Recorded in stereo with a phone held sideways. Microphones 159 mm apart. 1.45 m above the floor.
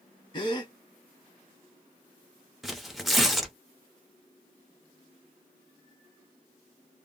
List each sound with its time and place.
0.3 s a gasp: 30° left (ahead or behind), 0.9 m
2.6 s tearing paper: centre (ahead or behind), 0.7 m